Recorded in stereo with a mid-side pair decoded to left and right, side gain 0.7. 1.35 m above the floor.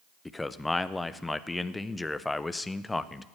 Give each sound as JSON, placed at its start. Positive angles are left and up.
{"t": 0.2, "sound": "a man speaking", "azimuth_deg": 10, "distance_m": 0.7}